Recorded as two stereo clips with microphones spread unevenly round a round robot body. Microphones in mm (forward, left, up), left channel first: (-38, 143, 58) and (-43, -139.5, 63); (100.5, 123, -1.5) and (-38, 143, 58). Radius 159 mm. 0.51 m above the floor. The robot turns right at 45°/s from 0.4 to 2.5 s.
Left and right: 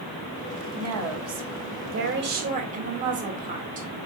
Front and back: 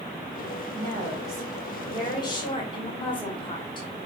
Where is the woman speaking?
110° right, 1.9 m; by 3.9 s 30° right, 1.9 m.